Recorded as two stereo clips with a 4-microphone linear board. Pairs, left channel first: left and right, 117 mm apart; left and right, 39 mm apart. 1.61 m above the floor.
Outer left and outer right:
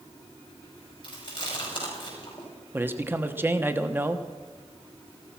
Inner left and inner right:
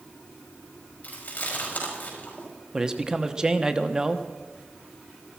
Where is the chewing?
40° left (ahead or behind), 6 m.